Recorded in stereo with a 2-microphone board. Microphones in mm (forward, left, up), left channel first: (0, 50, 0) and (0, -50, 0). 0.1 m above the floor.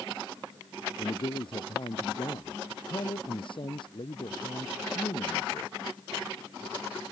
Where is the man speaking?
55° left (ahead or behind).